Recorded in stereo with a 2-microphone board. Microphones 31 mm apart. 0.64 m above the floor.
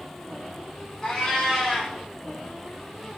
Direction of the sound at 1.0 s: 15° left (ahead or behind).